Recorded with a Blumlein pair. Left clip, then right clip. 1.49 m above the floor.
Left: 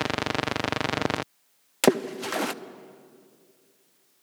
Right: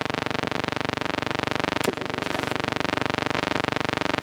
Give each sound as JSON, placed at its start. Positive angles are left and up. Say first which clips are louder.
{"t": 1.8, "sound": "a splash", "louder": "left 3 dB", "azimuth_deg": 50, "distance_m": 0.9}